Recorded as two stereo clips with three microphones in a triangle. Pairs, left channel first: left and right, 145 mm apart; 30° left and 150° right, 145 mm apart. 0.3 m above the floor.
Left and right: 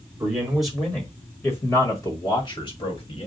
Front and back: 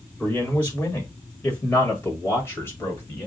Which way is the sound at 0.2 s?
30° right.